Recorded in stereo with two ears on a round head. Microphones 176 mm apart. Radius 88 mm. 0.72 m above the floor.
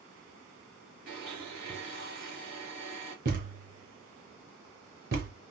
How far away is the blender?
About 2.5 m.